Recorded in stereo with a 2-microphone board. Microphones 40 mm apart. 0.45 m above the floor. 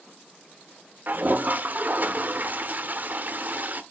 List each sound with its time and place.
1.1 s a toilet flushing: 45° right (ahead or behind), 0.9 m